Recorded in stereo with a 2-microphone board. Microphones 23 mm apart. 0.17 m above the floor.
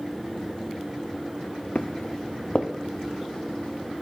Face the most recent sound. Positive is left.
turn(degrees=85)